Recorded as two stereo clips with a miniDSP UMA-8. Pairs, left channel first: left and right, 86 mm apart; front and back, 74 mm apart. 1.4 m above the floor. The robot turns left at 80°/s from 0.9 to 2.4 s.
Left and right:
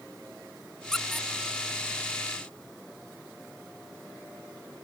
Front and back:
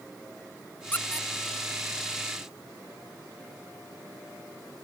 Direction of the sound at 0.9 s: 15° left.